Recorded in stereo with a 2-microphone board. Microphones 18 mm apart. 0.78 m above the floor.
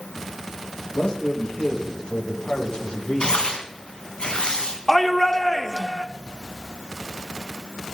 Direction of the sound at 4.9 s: 15° left (ahead or behind).